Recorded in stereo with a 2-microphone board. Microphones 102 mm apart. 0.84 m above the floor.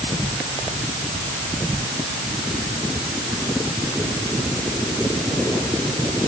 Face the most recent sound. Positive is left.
No sound to turn to.